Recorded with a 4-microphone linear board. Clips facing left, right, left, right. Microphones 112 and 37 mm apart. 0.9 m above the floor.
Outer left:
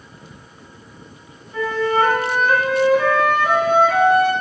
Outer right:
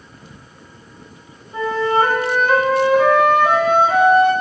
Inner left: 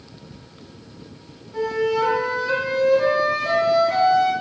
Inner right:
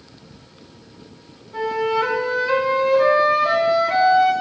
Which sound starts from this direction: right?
A flute, at 1.5 s.